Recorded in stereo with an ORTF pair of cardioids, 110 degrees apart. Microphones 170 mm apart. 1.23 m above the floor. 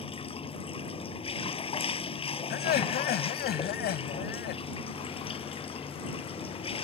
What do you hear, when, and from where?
0.0 s running water: 30° left
2.5 s laughter: 65° left